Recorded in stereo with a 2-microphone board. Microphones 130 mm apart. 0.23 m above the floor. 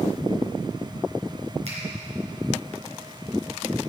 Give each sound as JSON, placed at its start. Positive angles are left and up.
{"t": 1.6, "sound": "a finger snap", "side_deg": -55, "distance_m": 3.5}